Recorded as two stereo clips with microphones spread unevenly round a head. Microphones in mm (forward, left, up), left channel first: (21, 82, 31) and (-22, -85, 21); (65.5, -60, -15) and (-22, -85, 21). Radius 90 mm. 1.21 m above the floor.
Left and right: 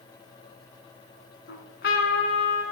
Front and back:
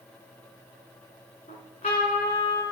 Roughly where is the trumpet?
Ahead left.